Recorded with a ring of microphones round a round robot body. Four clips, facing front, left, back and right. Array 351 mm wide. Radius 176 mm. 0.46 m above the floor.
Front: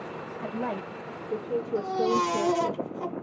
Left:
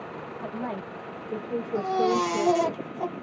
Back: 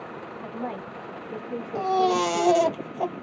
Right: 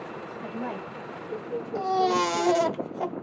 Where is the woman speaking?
Straight ahead, 1.9 m; by 2.8 s 55° left, 1.8 m.